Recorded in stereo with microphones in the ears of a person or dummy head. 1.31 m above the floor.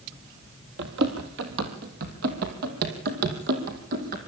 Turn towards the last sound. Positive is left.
turn(degrees=-50)  # may be behind; listen again after turning